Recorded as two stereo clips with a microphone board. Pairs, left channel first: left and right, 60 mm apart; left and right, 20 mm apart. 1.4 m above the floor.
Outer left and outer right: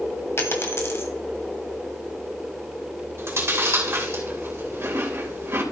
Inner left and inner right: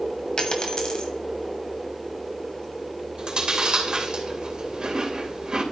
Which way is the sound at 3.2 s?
45° right (ahead or behind).